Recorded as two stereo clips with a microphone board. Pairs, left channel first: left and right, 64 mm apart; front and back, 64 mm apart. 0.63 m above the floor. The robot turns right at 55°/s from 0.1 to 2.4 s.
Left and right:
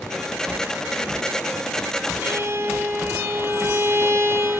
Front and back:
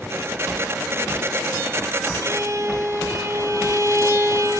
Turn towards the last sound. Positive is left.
turn(degrees=-135)